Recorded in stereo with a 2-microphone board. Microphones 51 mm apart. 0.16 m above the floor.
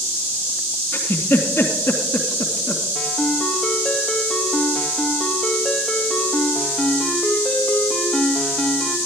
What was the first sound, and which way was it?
A giggle, 50° left (ahead or behind).